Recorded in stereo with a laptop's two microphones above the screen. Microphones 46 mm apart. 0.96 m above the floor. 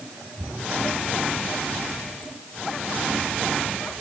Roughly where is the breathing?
I don't hear breathing.